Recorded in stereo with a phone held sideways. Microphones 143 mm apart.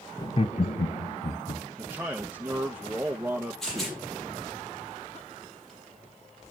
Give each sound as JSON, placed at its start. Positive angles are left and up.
{"t": 0.2, "sound": "laughter", "side_deg": 30, "distance_m": 0.6}
{"t": 1.8, "sound": "a man speaking", "side_deg": -15, "distance_m": 0.8}
{"t": 3.6, "sound": "a rattle", "side_deg": 0, "distance_m": 6.5}